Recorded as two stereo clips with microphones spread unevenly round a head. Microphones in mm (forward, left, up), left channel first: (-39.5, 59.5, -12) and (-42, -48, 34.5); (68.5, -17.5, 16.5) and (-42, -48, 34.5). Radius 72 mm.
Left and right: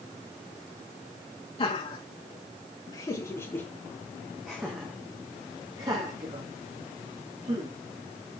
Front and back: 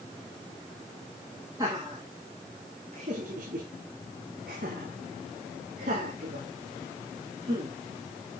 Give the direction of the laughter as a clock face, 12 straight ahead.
8 o'clock.